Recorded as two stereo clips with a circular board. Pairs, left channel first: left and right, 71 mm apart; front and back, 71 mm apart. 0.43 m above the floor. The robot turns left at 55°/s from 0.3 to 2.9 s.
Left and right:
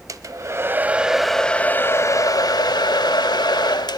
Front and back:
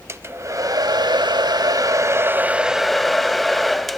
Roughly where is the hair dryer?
Behind right.